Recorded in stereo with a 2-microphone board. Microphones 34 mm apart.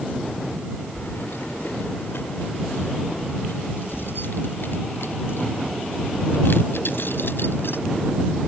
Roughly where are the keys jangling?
Left.